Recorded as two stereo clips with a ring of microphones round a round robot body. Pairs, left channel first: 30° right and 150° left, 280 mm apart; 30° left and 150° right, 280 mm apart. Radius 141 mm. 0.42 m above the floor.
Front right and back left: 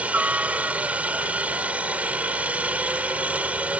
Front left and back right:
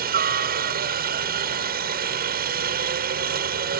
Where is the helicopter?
130° right.